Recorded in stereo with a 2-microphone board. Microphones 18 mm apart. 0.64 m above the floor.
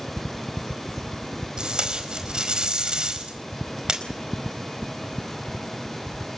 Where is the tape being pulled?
55° right (ahead or behind), 4.5 m.